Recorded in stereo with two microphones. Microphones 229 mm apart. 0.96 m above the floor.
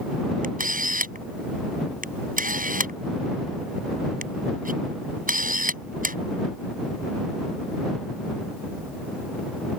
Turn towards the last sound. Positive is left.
turn(degrees=-35)  # may be behind; listen again after turning